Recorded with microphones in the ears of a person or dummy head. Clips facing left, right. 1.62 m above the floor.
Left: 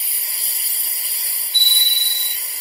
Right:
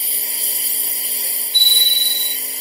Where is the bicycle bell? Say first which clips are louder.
Right 2 dB; 75° right (ahead or behind).